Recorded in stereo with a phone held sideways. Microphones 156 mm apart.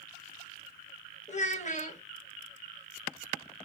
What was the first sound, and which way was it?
A child speaking, 50° left (ahead or behind).